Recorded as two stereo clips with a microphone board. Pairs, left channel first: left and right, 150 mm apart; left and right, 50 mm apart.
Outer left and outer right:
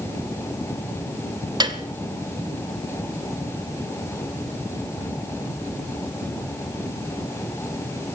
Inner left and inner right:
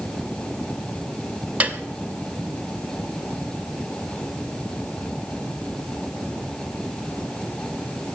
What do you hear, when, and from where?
1.6 s a piano: 30° right (ahead or behind), 1.0 m